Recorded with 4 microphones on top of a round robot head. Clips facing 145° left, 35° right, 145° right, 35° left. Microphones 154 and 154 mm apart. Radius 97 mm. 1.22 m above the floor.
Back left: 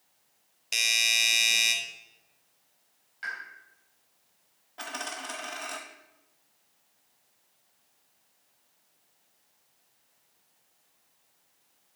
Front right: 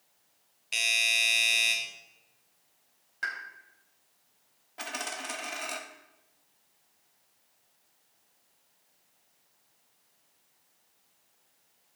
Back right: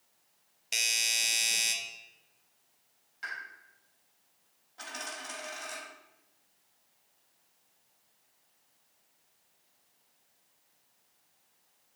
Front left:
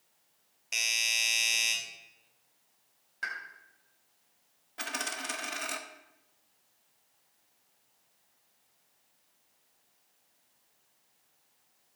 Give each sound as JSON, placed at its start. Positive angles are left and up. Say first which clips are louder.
{"t": 0.7, "sound": "a doorbell", "louder": "even, even", "azimuth_deg": 170, "distance_m": 1.7}
{"t": 3.2, "sound": "a pop", "louder": "front right 2 dB, front left 3 dB", "azimuth_deg": 5, "distance_m": 3.0}
{"t": 4.8, "sound": "a dropped coin", "louder": "even, front left 4 dB", "azimuth_deg": 45, "distance_m": 0.6}